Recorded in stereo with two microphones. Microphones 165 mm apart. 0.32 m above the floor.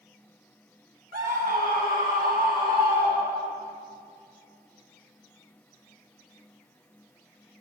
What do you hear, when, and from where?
1.1 s a scream: 60° right (ahead or behind), 2 m; by 3.6 s 70° right (ahead or behind), 4 m